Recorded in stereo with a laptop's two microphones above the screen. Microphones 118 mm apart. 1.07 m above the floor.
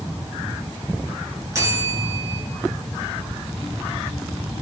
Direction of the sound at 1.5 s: 30° right (ahead or behind).